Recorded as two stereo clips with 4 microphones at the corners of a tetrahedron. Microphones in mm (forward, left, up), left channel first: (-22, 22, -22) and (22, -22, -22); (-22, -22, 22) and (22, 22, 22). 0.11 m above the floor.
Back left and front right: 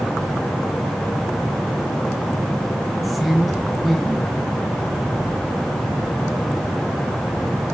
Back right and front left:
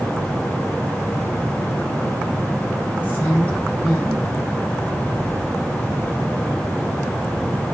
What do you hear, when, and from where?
3.0 s a woman speaking: 135° right, 1.1 m